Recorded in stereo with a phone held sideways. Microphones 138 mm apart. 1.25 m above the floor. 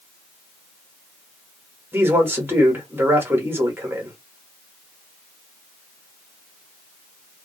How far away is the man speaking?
About 1.2 m.